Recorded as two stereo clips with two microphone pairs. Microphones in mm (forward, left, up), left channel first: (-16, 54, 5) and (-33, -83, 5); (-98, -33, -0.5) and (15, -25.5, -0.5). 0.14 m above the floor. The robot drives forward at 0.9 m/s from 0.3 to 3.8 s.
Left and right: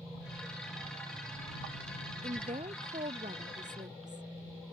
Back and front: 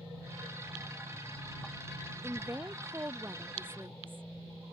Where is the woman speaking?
60° right; by 4.2 s 70° right.